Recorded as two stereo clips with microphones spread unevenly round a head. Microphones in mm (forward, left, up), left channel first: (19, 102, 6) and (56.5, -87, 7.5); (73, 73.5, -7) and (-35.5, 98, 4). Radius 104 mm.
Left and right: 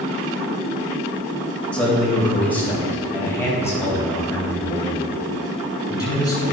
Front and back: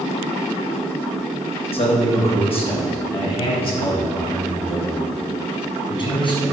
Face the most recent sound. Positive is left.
turn(degrees=30)